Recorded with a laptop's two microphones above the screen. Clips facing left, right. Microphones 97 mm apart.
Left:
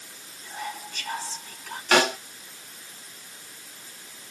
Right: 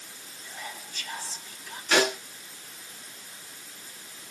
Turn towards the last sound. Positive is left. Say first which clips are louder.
# left 3 dB
turn(degrees=60)  # may be behind; listen again after turning